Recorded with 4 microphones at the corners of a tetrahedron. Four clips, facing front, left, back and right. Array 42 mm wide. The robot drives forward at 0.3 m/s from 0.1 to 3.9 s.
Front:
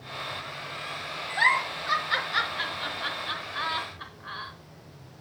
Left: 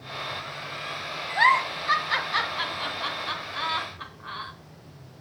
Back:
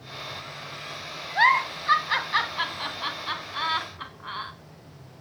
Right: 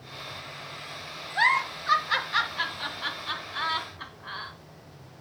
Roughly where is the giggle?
Behind.